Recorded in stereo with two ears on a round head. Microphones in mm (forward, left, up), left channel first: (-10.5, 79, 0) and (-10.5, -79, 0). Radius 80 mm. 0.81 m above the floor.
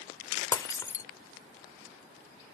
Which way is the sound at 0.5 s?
20° left (ahead or behind).